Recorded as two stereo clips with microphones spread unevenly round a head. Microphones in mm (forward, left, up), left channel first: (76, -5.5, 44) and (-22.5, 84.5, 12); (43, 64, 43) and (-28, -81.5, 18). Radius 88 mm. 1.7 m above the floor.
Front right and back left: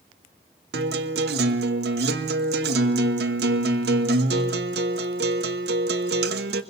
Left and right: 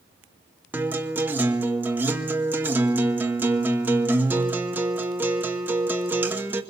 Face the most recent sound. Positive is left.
turn(degrees=160)